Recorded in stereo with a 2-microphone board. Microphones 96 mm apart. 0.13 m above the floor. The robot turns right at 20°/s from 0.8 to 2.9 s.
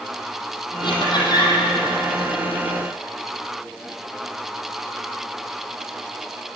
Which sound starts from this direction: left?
Laughter, at 0.8 s.